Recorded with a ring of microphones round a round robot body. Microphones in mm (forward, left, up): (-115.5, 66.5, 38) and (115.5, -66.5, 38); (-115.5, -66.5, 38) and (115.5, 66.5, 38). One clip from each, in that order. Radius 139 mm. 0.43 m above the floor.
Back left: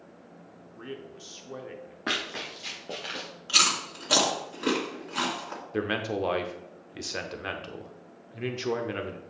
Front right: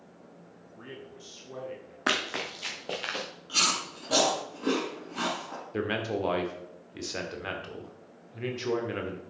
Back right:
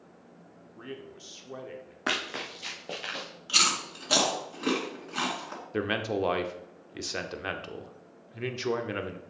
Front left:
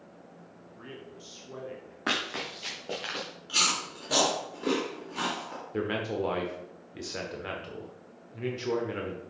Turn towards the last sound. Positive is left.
turn(degrees=-140)